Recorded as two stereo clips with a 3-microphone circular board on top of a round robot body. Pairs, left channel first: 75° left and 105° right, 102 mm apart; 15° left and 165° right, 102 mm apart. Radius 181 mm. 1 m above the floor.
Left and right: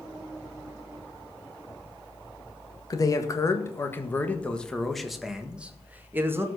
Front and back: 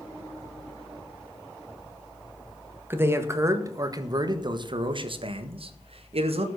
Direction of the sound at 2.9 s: 125° left.